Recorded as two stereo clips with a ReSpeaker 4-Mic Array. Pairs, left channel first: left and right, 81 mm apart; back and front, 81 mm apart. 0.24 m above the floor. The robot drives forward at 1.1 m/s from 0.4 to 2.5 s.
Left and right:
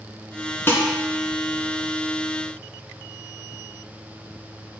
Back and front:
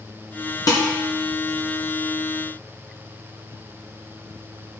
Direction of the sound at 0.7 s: 150° left.